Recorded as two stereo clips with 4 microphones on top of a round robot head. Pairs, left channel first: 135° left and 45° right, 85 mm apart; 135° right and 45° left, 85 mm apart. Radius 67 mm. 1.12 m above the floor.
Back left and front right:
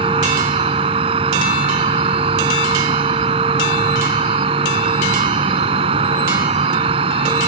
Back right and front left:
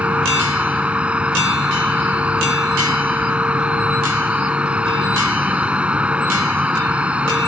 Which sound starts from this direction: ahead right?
An insect, at 0.0 s.